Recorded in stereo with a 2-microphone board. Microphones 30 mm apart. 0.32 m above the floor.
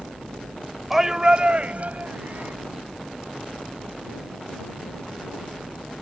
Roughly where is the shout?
Centre.